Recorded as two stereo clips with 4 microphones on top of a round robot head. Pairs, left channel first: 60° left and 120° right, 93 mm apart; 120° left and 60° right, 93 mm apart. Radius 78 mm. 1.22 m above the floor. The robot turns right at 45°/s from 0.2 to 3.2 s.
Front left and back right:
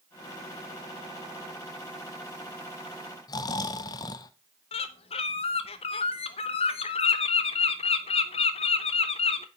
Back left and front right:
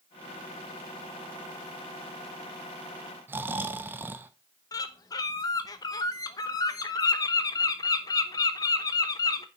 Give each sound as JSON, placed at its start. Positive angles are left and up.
{"t": 3.3, "sound": "snoring", "azimuth_deg": 10, "distance_m": 0.7}
{"t": 4.7, "sound": "a bird", "azimuth_deg": 70, "distance_m": 0.9}